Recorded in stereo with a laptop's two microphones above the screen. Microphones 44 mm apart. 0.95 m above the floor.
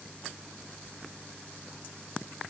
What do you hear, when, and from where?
Only background noise.